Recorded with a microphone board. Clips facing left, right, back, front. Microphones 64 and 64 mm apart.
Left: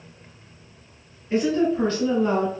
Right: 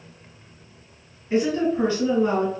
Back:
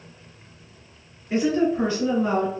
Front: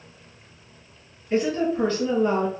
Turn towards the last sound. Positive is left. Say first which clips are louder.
# even, back 2 dB
turn(degrees=-145)